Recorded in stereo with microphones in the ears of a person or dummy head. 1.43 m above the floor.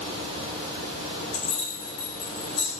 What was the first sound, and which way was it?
Keys jangling, 50° left (ahead or behind).